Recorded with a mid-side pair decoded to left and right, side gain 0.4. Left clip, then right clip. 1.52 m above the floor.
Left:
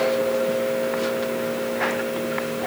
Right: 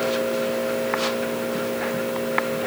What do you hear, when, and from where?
Only background noise.